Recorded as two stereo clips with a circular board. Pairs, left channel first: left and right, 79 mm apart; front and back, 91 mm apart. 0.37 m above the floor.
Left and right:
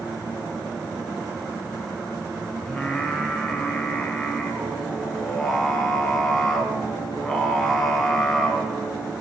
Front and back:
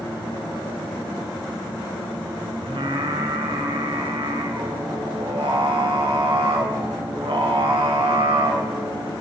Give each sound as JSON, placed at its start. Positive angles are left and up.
{"t": 2.7, "sound": "singing", "azimuth_deg": 170, "distance_m": 1.5}